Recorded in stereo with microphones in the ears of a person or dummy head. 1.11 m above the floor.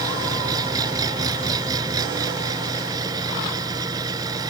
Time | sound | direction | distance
0.0 | an engine running | 20° right (ahead or behind) | ?